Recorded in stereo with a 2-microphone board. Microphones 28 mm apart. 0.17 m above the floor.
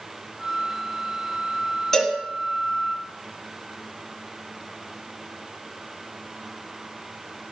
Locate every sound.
0.4 s a flute: 20° right (ahead or behind), 1.8 m
1.9 s a cowbell: 15° left (ahead or behind), 1.4 m